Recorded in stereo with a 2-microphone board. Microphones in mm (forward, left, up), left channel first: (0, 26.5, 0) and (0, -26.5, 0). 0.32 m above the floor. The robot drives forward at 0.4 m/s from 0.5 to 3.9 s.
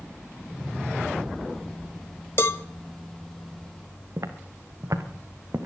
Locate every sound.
2.4 s a cowbell: 50° left (ahead or behind), 0.6 m
4.2 s footsteps: 85° right, 2.5 m; by 5.7 s 60° right (ahead or behind), 2.5 m